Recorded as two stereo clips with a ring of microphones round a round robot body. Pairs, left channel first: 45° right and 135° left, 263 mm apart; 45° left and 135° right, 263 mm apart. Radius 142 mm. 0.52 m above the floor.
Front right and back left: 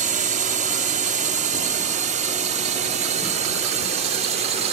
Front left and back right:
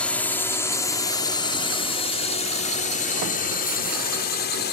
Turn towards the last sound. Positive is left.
turn(degrees=75)